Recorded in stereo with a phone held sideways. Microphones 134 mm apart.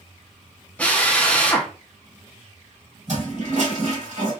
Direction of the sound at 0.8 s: 10° left (ahead or behind).